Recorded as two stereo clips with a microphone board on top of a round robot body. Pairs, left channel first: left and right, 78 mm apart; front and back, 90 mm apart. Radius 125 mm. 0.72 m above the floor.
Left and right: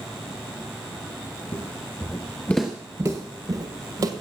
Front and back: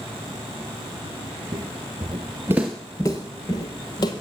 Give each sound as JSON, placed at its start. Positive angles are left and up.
{"t": 1.5, "sound": "footsteps", "azimuth_deg": 135, "distance_m": 1.2}